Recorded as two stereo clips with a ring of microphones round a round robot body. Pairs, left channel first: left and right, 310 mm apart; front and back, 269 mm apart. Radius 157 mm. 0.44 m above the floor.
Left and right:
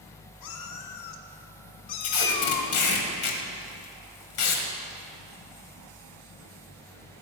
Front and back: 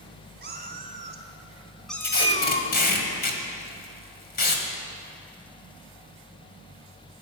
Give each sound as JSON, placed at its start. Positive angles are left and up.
{"t": 0.4, "sound": "a cat meowing", "azimuth_deg": 125, "distance_m": 1.8}
{"t": 2.0, "sound": "tape being pulled", "azimuth_deg": 55, "distance_m": 1.9}